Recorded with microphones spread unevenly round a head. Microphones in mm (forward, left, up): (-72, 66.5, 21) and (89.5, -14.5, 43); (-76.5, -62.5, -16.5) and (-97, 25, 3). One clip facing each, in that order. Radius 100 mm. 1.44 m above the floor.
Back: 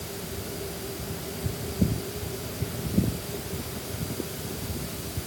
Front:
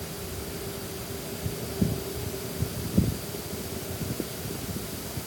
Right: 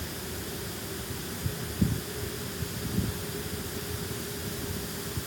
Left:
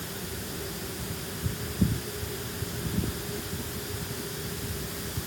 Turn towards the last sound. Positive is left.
No sound to turn to.